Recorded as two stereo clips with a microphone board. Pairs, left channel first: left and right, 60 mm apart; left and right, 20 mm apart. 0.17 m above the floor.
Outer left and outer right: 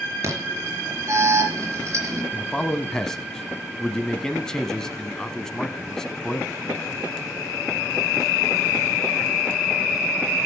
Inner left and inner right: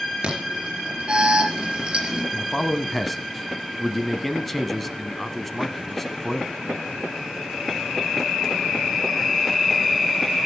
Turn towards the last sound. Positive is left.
turn(degrees=5)  # may be behind; listen again after turning